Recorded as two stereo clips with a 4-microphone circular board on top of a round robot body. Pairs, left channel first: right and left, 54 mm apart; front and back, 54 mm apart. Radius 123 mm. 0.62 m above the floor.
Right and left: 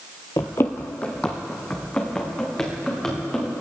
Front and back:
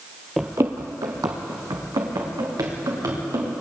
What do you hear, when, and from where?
0.4 s running footsteps: 90° right, 0.6 m; by 3.5 s 170° right, 5 m